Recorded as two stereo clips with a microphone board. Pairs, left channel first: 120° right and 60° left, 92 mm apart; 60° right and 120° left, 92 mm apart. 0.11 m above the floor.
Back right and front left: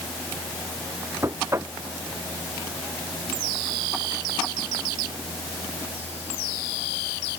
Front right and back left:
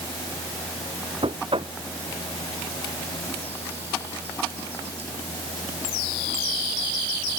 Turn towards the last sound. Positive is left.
turn(degrees=120)